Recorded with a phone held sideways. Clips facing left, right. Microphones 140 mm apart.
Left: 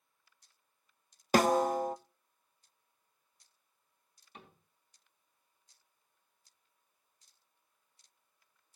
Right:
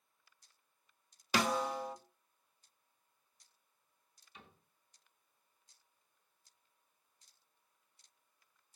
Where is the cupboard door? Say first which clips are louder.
Left 4 dB; 60° left (ahead or behind), 4 m.